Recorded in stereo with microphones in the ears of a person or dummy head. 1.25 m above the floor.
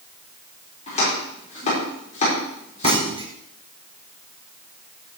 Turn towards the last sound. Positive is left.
turn(degrees=-30)  # may be behind; listen again after turning